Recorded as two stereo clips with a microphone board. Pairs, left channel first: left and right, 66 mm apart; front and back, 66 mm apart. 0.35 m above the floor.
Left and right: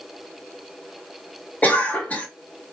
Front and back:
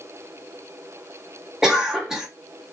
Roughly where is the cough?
Behind left.